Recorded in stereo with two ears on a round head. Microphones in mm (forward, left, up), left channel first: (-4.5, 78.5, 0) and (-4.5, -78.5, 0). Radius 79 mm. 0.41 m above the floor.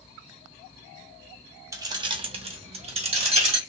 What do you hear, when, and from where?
1.7 s keys jangling: 15° right (ahead or behind), 0.5 m; by 3.6 s 35° right (ahead or behind), 1.0 m